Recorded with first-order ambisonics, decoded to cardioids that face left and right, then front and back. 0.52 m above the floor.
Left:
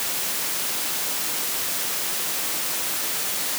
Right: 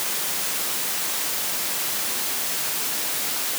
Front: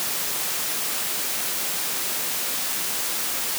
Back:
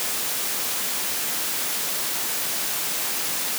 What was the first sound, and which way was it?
Only background noise.